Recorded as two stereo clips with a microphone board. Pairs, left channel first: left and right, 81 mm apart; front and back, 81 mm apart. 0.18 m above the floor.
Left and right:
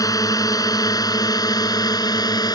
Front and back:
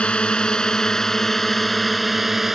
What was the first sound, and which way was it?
A drone, 70° left.